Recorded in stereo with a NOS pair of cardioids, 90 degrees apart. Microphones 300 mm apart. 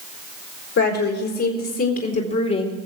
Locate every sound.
0.8 s a woman speaking: 60° left, 4.5 m; by 2.8 s 30° left, 2 m